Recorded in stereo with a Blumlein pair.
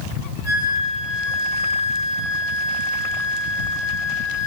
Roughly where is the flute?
Ahead right.